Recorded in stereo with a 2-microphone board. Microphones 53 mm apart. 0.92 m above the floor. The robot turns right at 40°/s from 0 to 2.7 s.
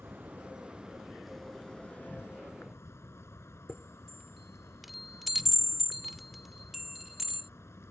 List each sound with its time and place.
0.0 s an insect: 50° right; by 7.9 s 55° left
3.7 s a chime: centre (ahead or behind)